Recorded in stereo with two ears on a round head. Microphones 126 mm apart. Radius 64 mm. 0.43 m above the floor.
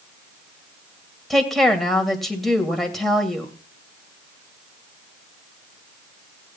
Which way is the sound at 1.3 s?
Centre (ahead or behind).